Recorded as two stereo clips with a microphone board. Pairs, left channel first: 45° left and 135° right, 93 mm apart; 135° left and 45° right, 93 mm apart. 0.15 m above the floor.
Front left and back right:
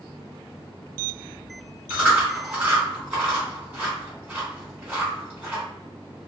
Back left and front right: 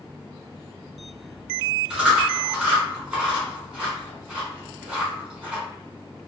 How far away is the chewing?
About 1.4 m.